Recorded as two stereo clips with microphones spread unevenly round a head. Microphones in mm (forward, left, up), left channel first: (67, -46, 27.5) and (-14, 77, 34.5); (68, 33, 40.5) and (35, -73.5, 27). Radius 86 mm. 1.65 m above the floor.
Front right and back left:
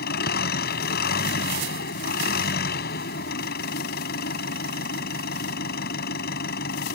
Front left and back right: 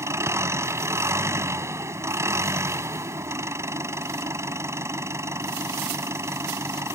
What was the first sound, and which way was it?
An engine running, 40° right.